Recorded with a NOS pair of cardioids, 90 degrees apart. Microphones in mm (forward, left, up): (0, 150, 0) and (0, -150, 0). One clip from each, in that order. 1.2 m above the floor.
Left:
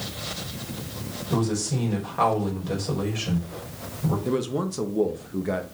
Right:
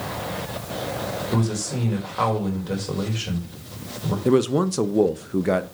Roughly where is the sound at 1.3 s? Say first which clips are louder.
Even; ahead.